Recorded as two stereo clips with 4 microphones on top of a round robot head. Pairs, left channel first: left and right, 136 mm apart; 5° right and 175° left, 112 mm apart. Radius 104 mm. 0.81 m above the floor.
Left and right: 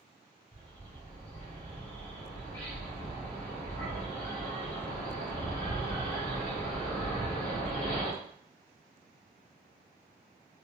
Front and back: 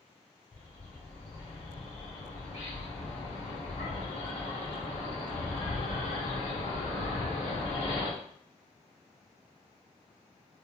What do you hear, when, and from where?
0.5 s a bird: 15° left, 2 m